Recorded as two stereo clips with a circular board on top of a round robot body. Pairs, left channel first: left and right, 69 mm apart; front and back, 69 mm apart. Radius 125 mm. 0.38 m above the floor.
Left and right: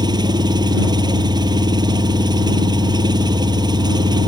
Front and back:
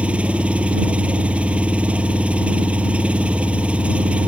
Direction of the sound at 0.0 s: 105° right.